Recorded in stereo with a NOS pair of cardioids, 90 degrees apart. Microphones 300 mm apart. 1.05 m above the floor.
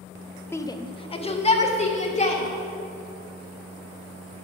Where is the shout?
10° left, 0.6 m; by 2.4 s 25° left, 2.5 m.